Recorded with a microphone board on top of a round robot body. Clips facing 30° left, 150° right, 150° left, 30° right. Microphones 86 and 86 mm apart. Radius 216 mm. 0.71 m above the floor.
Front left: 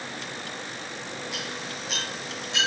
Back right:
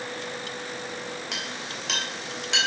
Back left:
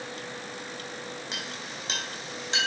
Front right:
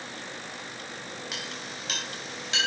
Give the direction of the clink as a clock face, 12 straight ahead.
5 o'clock.